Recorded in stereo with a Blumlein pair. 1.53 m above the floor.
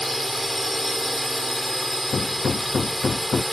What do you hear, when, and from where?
0.0 s a drone: straight ahead
2.1 s hammering: 15° left